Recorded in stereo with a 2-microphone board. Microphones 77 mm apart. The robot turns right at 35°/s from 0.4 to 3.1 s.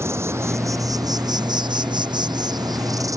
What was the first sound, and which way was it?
An insect, 145° right.